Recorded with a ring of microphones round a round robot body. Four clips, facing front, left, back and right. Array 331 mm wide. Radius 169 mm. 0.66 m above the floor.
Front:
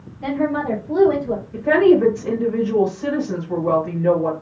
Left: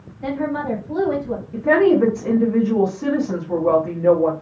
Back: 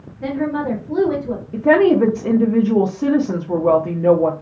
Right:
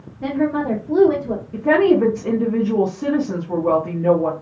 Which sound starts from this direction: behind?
A woman speaking, at 1.5 s.